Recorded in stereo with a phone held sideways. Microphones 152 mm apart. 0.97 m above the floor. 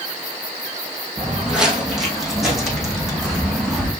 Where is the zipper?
No zipper in this recording.